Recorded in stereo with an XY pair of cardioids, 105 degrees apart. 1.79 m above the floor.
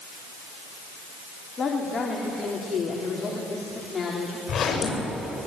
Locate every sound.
1.6 s a woman speaking: 35° left, 4 m
4.5 s a zipper: 50° left, 8.5 m